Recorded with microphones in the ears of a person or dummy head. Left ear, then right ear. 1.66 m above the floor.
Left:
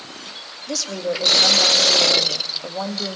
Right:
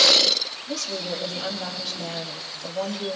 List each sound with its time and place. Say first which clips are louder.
0.7 s a woman speaking: left 4 dB; 75° left (ahead or behind), 2.5 m